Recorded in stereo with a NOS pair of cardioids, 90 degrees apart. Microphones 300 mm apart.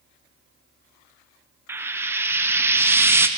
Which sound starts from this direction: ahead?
Frying, at 1.7 s.